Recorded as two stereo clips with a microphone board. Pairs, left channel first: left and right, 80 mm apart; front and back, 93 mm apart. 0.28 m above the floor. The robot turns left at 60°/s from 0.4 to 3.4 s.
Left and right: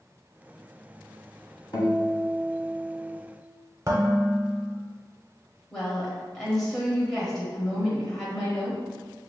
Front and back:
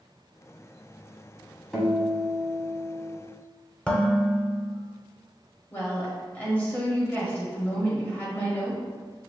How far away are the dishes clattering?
About 0.8 m.